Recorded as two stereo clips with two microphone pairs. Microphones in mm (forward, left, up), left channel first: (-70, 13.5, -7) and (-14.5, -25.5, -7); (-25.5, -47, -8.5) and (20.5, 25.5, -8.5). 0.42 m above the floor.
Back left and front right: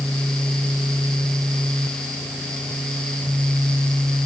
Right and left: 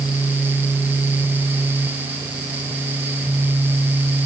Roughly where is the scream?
No scream in this recording.